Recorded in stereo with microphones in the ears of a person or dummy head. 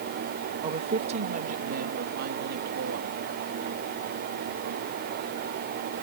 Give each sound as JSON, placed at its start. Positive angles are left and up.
{"t": 0.6, "sound": "a woman speaking", "side_deg": -30}